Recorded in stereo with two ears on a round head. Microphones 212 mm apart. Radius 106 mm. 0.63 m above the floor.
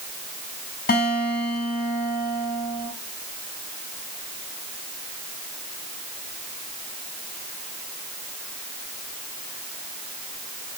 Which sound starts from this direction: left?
A guitar, at 0.9 s.